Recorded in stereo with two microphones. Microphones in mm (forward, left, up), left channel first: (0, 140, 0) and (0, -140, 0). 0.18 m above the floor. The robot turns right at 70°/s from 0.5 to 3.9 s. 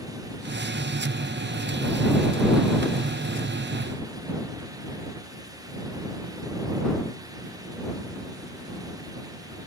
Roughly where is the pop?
No pop in this recording.